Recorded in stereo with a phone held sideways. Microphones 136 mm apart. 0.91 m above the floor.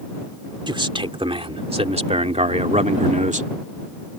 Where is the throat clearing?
No throat clearing in this recording.